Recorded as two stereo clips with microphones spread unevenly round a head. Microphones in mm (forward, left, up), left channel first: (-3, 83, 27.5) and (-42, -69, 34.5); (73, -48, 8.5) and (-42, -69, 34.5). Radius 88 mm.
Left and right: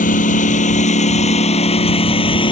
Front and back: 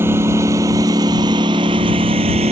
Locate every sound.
0.0 s a lawn mower: 115° left; by 2.5 s 135° left